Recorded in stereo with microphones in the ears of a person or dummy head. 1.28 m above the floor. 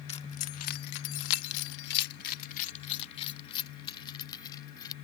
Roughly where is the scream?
I don't hear a scream.